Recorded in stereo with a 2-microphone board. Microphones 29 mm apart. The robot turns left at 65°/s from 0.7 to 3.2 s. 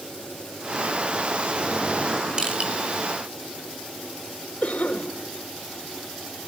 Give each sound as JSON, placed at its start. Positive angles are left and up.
{"t": 2.4, "sound": "crushing", "side_deg": -25, "distance_m": 4.0}
{"t": 4.6, "sound": "a cough", "side_deg": 60, "distance_m": 3.0}